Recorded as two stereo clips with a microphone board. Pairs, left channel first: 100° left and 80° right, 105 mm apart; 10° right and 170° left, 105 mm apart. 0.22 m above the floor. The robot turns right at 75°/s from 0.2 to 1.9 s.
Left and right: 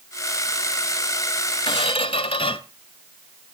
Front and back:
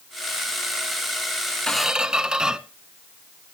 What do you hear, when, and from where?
1.7 s a squeak: 70° left, 0.8 m; by 2.6 s 85° left, 0.8 m